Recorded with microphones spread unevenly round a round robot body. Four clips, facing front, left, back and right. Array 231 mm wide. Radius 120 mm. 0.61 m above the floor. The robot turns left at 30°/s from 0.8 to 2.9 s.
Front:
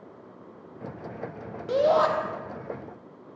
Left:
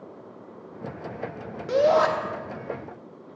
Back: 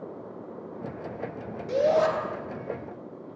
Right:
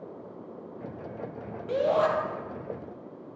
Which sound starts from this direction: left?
A shout, at 1.7 s.